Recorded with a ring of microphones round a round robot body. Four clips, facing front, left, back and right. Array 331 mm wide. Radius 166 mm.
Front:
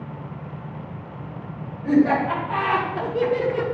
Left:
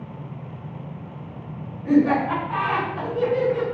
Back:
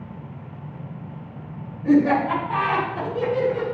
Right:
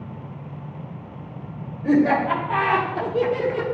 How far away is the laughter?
About 2.5 m.